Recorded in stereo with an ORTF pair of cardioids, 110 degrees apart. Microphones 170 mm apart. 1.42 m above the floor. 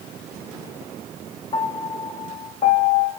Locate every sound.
1.5 s a piano: 40° left, 2.5 m